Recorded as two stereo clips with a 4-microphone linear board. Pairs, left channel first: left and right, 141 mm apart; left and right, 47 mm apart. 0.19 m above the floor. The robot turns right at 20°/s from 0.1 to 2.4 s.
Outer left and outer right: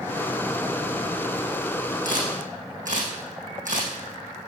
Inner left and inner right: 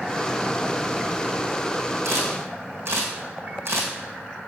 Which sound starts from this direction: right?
A camera shutter, at 2.0 s.